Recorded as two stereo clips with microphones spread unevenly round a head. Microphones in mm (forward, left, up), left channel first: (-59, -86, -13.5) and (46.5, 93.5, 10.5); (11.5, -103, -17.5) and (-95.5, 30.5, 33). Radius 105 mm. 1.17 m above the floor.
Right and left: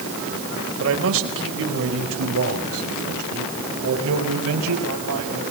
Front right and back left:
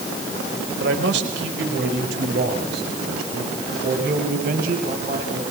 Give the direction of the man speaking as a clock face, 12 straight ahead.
9 o'clock.